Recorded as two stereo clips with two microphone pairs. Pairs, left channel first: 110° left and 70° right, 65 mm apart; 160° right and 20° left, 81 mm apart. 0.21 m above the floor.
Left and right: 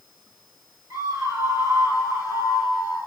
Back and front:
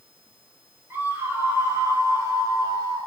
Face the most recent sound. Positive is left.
turn(degrees=-20)